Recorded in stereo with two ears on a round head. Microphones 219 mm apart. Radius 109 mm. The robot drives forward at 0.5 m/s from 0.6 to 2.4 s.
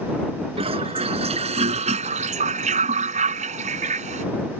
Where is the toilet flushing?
25° right (ahead or behind); by 4.2 s 30° right (ahead or behind).